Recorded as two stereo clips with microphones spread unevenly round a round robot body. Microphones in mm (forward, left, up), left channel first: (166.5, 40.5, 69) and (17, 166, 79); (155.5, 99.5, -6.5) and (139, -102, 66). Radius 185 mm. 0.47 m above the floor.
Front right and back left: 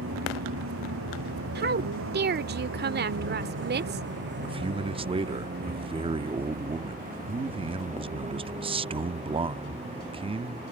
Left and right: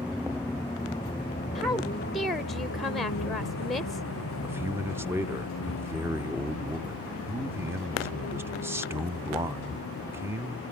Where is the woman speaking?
160° left.